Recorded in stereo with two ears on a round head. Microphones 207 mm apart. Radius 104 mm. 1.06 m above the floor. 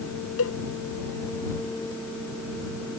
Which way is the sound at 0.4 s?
65° left (ahead or behind).